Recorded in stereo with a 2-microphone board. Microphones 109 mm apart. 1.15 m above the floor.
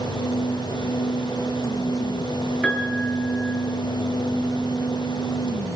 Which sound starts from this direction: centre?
A piano, at 2.6 s.